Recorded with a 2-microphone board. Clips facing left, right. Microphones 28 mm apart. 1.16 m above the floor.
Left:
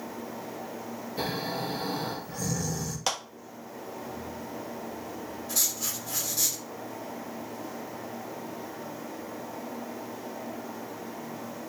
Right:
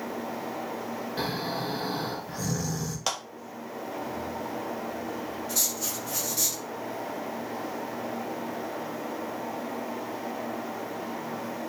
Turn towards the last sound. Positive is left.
turn(degrees=0)  # may be behind; listen again after turning